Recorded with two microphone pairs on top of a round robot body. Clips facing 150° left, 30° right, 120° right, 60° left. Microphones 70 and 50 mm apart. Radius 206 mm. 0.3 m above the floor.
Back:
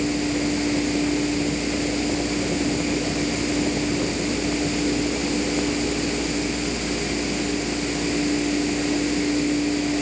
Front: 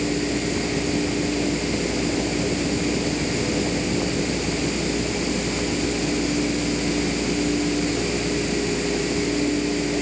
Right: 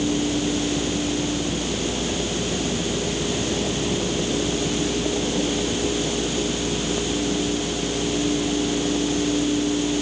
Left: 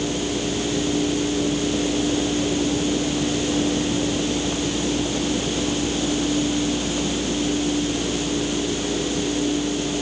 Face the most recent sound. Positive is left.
No sound to turn to.